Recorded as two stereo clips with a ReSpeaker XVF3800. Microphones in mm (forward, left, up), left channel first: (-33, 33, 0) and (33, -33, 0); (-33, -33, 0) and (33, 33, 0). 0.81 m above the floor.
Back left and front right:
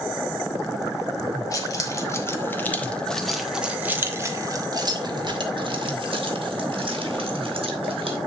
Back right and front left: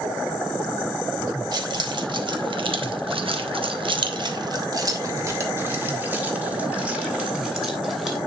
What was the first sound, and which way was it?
Keys jangling, 85° left.